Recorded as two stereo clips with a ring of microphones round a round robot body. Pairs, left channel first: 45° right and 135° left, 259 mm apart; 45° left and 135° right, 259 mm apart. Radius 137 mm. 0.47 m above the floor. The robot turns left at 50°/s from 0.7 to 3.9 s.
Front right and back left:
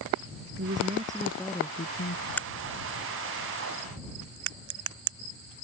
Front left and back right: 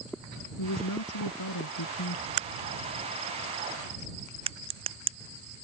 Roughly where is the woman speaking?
Left.